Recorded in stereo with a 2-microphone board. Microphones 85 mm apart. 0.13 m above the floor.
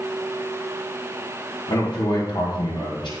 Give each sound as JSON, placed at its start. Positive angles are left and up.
{"t": 1.7, "sound": "a man speaking", "side_deg": 75, "distance_m": 5.5}